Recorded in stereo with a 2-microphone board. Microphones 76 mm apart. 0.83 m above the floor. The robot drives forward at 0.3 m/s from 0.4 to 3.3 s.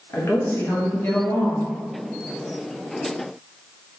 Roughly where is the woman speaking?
Left.